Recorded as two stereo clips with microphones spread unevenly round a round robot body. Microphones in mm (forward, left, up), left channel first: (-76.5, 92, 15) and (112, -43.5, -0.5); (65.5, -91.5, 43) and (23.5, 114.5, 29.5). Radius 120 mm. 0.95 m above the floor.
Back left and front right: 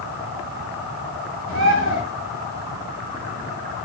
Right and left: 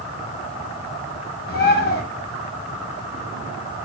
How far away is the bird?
About 1.3 m.